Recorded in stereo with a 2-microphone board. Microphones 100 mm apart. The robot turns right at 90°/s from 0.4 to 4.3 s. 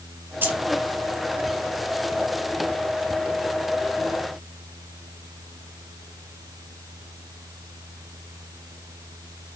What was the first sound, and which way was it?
Keys jangling, 20° right (ahead or behind).